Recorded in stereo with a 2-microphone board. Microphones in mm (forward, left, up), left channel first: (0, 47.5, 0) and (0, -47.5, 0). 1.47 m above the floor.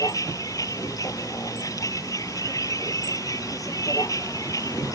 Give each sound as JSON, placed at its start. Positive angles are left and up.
{"t": 0.0, "sound": "a vehicle", "side_deg": 40}